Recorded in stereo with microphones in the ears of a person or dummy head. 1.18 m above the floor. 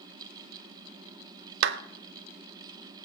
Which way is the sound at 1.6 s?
60° right (ahead or behind).